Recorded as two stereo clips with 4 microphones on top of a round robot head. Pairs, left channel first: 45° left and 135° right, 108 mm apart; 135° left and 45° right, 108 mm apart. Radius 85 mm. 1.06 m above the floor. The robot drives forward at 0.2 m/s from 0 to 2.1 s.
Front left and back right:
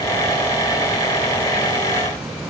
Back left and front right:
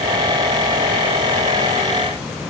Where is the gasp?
I don't hear a gasp.